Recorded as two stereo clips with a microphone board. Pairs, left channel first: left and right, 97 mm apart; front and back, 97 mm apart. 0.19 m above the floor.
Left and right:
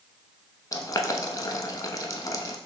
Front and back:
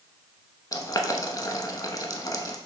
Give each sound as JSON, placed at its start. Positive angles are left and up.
{"t": 0.7, "sound": "boiling", "azimuth_deg": 45, "distance_m": 0.6}